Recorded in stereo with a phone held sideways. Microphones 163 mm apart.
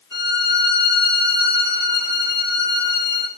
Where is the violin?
25° right (ahead or behind), 0.7 m.